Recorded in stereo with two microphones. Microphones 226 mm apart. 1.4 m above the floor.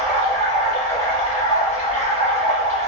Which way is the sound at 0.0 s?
30° left (ahead or behind).